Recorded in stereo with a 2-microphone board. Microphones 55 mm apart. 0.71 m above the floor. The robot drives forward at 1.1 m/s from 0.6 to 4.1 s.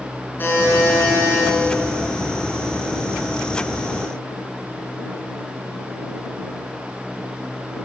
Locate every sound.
0.4 s a buzzer: 40° left (ahead or behind), 8.5 m